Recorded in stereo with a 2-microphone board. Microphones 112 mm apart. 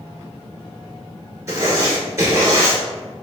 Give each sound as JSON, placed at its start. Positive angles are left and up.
{"t": 1.5, "sound": "writing", "side_deg": -30, "distance_m": 1.6}